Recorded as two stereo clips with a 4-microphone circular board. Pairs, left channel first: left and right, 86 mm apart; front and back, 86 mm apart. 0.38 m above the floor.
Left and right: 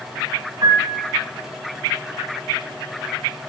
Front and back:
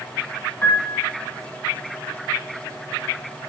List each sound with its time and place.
0.6 s a piano: 60° right, 3.5 m